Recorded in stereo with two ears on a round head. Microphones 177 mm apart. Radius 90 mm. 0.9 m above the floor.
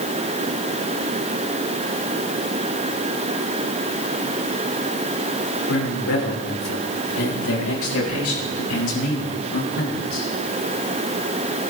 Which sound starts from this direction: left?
A man speaking, at 5.7 s.